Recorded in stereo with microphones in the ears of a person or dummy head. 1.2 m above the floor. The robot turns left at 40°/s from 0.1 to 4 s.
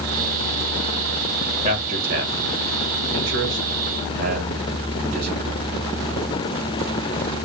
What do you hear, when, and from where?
1.6 s a man speaking: 35° right (ahead or behind), 1.0 m; by 5.6 s 45° right (ahead or behind), 1.0 m